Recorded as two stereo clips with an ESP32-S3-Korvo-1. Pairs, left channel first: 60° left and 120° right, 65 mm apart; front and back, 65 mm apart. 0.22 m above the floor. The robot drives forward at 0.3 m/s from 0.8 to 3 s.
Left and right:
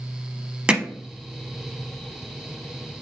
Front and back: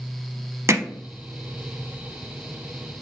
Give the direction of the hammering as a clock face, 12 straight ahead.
6 o'clock.